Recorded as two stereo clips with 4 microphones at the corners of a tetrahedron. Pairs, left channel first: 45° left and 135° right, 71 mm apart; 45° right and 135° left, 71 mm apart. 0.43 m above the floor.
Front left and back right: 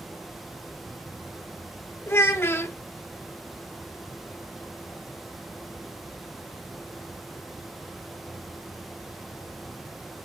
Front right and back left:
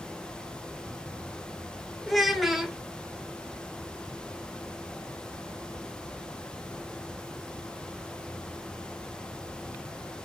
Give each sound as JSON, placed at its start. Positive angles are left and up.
{"t": 2.1, "sound": "a child speaking", "azimuth_deg": 45, "distance_m": 0.8}